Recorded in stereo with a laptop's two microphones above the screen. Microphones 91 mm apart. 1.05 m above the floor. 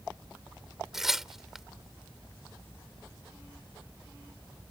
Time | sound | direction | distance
0.9 | tearing paper | 5° right (ahead or behind) | ?